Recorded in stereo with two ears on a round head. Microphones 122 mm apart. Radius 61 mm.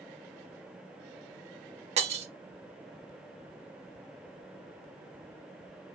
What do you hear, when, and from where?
2.0 s breaking glass: 50° right (ahead or behind), 0.6 m